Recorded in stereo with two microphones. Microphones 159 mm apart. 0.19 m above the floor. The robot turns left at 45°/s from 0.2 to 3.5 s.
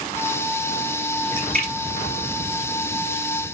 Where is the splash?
15° left (ahead or behind), 4 m; by 3.2 s 60° right (ahead or behind), 4 m.